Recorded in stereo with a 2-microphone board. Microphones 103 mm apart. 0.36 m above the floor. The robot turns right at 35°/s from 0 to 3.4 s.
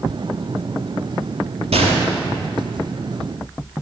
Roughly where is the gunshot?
Right.